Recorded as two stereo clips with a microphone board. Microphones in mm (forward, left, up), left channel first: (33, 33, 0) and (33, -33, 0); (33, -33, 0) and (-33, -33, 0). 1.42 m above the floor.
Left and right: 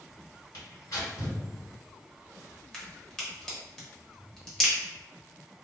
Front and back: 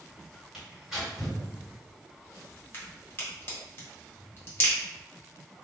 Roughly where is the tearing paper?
Left.